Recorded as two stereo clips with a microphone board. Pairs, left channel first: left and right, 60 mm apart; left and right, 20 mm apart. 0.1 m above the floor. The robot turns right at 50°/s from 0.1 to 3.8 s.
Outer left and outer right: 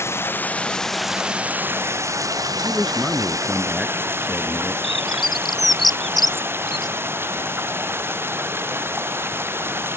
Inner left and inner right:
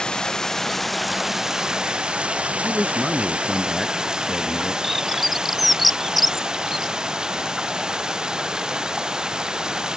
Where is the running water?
135° left; by 10.0 s 40° right.